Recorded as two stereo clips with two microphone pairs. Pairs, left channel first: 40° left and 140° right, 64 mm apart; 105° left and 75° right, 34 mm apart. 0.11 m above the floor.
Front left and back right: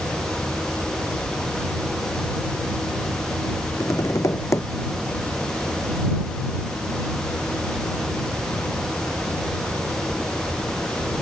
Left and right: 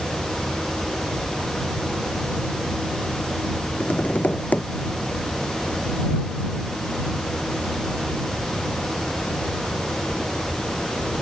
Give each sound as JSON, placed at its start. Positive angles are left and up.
{"t": 3.8, "sound": "tapping", "azimuth_deg": 75}